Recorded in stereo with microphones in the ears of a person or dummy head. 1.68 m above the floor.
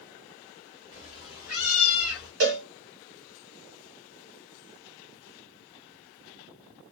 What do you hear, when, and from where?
0.9 s a cat meowing: 30° right (ahead or behind), 1.2 m; by 2.3 s 5° right (ahead or behind), 1.4 m
2.4 s a cowbell: 45° right (ahead or behind), 0.8 m